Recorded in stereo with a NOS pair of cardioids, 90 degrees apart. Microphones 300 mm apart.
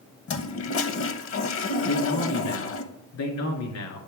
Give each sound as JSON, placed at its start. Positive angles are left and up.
{"t": 0.3, "sound": "a toilet flushing", "azimuth_deg": 50, "distance_m": 0.8}
{"t": 1.8, "sound": "a man speaking", "azimuth_deg": 70, "distance_m": 1.7}